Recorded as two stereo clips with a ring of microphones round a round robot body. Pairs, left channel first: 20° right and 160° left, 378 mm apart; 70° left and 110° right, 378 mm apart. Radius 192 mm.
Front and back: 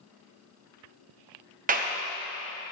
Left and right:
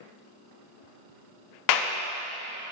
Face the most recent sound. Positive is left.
turn(degrees=90)